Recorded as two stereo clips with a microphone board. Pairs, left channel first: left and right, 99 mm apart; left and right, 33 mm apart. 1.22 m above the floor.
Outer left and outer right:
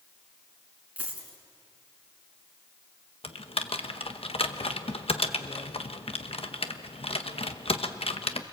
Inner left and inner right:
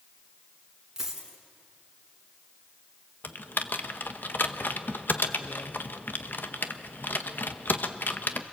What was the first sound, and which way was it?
A dropped coin, 15° right (ahead or behind).